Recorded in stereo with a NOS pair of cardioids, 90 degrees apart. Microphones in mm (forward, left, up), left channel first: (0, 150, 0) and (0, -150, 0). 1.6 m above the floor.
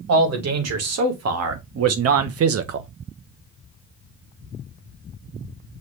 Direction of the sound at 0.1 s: 60° right.